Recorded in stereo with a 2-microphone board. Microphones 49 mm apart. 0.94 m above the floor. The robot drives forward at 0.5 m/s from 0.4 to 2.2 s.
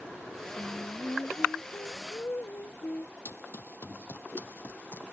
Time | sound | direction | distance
0.6 | singing | 65° left (ahead or behind) | ?
3.2 | running footsteps | 65° left (ahead or behind) | ?